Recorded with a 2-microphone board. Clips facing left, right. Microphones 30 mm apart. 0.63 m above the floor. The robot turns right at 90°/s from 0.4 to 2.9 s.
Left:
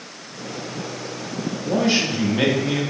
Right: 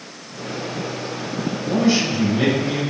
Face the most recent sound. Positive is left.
turn(degrees=115)